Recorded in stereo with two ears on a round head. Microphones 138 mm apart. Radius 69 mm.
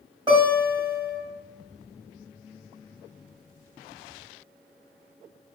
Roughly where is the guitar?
Right.